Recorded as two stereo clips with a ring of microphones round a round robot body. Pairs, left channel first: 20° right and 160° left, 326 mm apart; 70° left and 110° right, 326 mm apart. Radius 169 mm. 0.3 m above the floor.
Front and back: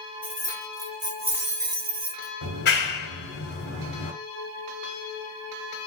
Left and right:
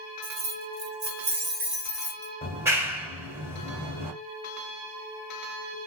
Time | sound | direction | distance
0.2 | keys jangling | 115° right | 1.3 m
2.4 | a clap | 35° right | 1.3 m